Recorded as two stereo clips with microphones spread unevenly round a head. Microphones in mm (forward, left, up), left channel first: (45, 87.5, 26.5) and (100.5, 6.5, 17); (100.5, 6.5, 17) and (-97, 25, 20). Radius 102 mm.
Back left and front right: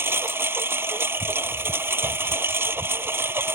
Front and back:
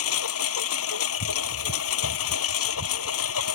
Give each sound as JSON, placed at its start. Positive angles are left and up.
{"t": 0.0, "sound": "a lawn mower", "azimuth_deg": 15}